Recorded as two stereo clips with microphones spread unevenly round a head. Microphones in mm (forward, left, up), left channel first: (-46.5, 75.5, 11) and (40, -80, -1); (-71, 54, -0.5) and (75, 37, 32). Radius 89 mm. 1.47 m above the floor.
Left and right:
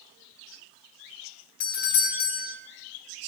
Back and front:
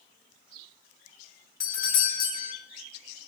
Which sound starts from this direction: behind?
A doorbell, at 1.6 s.